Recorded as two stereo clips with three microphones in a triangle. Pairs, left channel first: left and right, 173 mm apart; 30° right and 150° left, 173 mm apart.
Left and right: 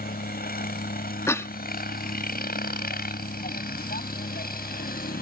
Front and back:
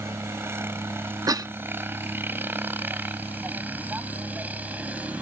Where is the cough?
135° left.